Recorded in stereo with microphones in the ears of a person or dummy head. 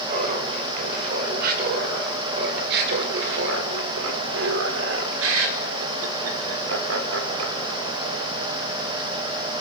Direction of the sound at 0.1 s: 55° right (ahead or behind).